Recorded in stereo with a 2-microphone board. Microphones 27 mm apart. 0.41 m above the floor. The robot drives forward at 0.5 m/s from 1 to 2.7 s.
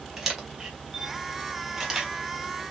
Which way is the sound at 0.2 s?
10° right (ahead or behind).